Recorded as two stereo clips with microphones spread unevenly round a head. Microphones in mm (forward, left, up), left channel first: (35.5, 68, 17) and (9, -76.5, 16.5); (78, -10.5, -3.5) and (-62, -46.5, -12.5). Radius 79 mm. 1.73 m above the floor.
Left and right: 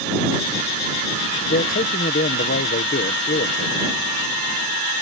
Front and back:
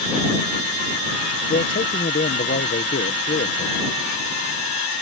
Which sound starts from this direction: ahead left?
A man speaking, at 1.5 s.